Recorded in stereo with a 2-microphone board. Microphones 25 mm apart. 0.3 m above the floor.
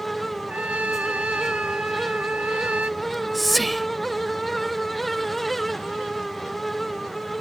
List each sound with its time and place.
0.5 s a trumpet: 60° right (ahead or behind)
3.0 s whispering: 5° left (ahead or behind)